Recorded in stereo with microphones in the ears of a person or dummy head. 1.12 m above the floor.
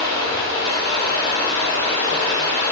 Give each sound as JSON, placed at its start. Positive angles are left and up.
{"t": 0.0, "sound": "running water", "side_deg": 60, "distance_m": 1.5}